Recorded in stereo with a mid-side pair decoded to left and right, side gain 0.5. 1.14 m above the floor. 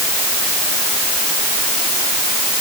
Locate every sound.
Only background noise.